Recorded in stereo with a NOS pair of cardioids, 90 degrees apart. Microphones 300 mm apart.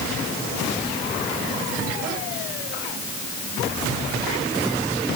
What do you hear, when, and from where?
Only background noise.